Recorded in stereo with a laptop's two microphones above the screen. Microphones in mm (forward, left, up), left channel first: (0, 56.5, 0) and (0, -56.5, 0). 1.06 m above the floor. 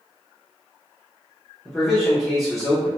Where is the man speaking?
Centre (ahead or behind), 0.7 m.